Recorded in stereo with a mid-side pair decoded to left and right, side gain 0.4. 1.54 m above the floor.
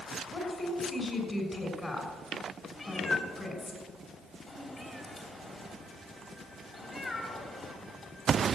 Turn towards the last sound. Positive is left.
turn(degrees=40)